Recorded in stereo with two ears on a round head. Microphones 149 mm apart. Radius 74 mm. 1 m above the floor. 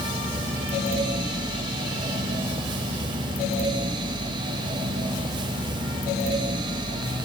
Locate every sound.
Only background noise.